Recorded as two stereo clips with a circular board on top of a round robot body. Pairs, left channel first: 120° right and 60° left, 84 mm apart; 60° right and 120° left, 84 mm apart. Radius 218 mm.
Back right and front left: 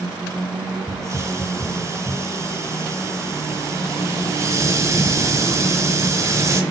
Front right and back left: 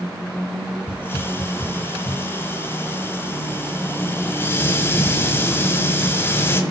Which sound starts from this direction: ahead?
A hiss, at 0.9 s.